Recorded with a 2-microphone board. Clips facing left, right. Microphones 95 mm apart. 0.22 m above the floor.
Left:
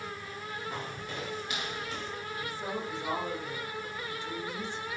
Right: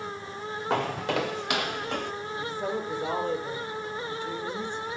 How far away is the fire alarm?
No fire alarm in this recording.